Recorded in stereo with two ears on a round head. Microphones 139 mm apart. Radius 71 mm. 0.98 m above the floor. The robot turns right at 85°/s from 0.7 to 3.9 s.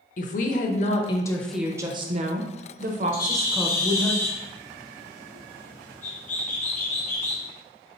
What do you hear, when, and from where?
0.2 s a woman speaking: 110° left, 0.7 m; by 4.1 s 20° left, 0.7 m
3.1 s a bird: 55° left, 0.9 m; by 7.5 s 120° left, 0.9 m